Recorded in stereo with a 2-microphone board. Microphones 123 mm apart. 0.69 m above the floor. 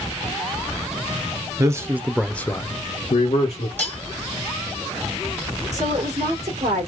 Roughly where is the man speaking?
Right.